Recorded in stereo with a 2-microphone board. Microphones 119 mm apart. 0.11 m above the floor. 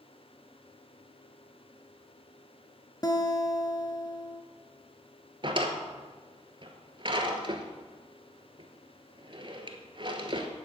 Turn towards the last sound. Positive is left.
turn(degrees=-45)  # may be behind; listen again after turning